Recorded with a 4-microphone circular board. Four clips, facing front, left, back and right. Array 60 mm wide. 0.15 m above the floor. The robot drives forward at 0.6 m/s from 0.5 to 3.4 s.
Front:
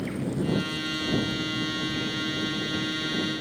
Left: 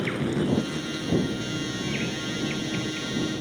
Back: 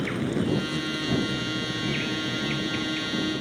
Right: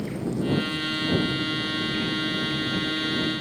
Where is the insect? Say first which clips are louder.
Left 2 dB, back 2 dB; 135° left, 1.1 m; by 3.4 s 165° left, 2.5 m.